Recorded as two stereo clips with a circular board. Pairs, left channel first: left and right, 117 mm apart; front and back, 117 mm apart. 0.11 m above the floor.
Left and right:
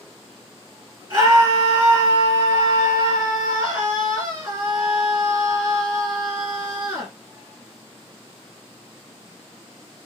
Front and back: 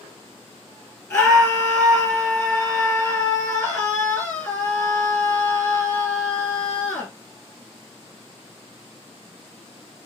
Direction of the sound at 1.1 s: 55° right.